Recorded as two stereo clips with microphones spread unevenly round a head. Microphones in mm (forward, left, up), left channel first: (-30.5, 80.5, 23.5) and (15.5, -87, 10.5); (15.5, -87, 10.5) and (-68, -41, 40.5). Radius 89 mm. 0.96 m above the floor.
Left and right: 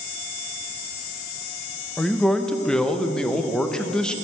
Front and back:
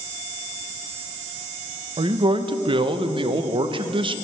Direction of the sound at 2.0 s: 165° right.